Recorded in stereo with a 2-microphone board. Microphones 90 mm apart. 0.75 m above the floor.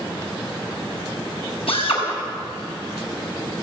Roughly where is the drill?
Left.